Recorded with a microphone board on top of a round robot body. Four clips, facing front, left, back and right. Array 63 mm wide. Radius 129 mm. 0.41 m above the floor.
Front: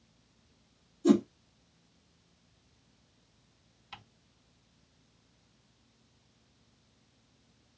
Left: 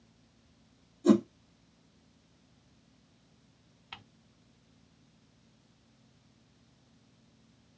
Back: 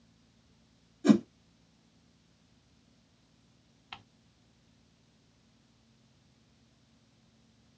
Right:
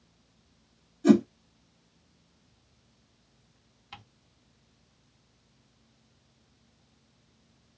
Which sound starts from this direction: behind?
Ticking, at 3.9 s.